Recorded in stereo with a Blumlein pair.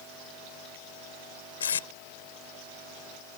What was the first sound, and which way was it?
Tape being pulled, 65° left.